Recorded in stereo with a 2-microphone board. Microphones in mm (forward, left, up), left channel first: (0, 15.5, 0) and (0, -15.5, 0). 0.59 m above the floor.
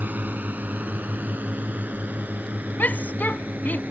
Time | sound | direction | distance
0.0 | a drone | 75° right (ahead or behind) | ?
2.8 | a shout | 75° left (ahead or behind) | ?